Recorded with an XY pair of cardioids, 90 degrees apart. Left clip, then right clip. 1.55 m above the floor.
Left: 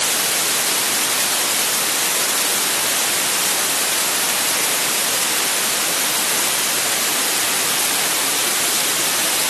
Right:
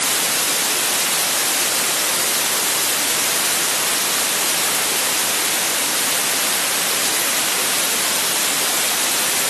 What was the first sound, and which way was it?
Only background noise.